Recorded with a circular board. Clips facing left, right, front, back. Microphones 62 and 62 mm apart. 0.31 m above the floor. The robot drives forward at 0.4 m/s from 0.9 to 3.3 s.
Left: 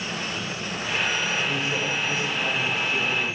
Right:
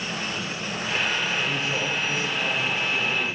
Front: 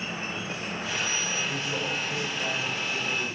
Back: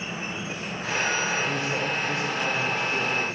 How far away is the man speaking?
About 1.2 m.